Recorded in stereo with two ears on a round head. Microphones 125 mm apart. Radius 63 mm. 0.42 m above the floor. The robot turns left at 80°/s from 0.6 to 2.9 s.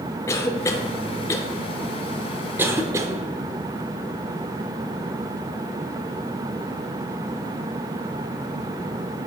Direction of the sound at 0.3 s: 20° left (ahead or behind).